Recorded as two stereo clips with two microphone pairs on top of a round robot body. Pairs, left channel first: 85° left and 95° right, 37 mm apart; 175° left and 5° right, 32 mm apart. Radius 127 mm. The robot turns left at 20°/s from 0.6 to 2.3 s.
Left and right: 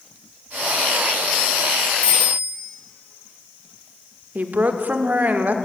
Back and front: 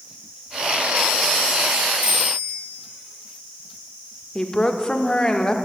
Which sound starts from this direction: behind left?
A bicycle bell, at 2.0 s.